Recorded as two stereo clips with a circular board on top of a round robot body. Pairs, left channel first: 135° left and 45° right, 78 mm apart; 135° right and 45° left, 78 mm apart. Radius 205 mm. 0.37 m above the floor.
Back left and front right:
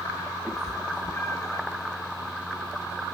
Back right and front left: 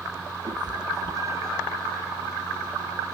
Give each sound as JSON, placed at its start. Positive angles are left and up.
{"t": 0.5, "sound": "a cat meowing", "azimuth_deg": 35, "distance_m": 0.8}